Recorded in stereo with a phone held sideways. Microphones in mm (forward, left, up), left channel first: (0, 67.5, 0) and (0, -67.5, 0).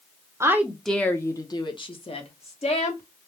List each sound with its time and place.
0.4 s a woman speaking: 20° right (ahead or behind), 0.6 m; by 3.0 s 50° left (ahead or behind), 1.5 m